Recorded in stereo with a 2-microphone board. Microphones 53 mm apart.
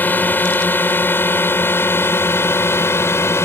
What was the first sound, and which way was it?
A drone, 40° left (ahead or behind).